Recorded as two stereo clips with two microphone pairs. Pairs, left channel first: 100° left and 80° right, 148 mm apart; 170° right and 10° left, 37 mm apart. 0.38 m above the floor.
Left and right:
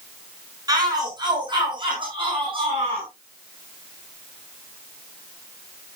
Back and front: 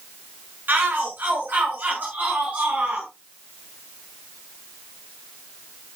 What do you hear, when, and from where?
0.7 s a shout: 15° right, 5 m; by 3.1 s 30° right, 5 m